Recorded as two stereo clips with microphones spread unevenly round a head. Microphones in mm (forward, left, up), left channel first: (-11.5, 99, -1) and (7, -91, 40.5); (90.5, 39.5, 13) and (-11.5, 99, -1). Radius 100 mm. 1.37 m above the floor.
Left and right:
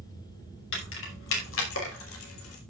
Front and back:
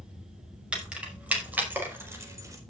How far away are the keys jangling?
About 5.5 m.